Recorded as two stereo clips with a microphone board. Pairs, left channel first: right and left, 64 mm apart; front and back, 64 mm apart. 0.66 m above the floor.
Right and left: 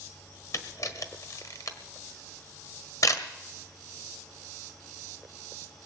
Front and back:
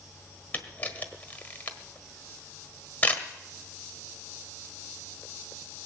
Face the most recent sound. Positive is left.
turn(degrees=-65)